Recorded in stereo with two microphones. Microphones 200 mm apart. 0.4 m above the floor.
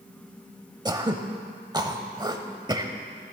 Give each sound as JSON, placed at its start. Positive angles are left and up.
{"t": 0.8, "sound": "throat clearing", "side_deg": -20, "distance_m": 0.7}